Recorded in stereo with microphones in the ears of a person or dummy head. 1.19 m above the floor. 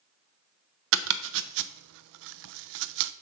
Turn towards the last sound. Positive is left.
turn(degrees=-70)  # may be behind; listen again after turning